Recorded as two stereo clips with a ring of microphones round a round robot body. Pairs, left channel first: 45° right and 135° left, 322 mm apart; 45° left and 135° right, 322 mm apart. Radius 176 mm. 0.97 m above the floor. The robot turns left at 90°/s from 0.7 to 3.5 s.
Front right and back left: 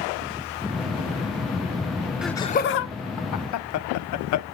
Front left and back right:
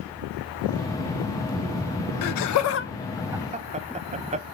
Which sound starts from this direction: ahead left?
Laughter, at 2.2 s.